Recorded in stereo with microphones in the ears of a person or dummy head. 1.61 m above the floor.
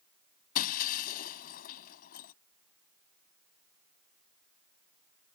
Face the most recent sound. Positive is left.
turn(degrees=50)  # may be behind; listen again after turning